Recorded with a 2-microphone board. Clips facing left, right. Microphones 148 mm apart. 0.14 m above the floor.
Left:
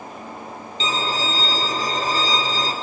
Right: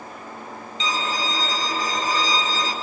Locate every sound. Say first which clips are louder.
0.8 s a violin: left 2 dB; 35° left (ahead or behind), 1.3 m